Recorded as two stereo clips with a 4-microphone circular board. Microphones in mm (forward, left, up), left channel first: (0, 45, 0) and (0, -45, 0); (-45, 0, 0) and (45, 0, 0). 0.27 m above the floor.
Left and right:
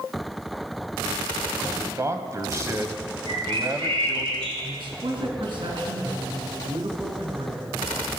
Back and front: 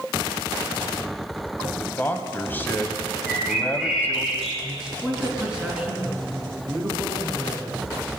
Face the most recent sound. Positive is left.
turn(degrees=-80)